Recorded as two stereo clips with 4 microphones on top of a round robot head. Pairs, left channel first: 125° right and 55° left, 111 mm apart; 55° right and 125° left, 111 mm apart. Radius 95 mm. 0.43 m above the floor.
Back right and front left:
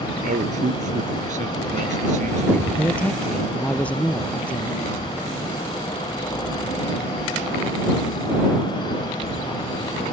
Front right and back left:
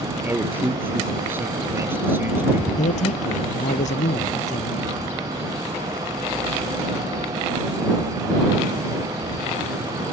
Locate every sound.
0.2 s a man speaking: 50° left
2.8 s a man speaking: 45° right